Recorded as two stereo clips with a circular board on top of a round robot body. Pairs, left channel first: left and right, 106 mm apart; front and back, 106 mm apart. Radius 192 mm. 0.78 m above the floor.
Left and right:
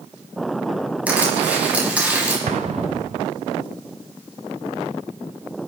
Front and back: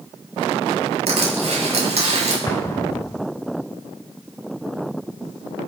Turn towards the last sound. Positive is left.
turn(degrees=-65)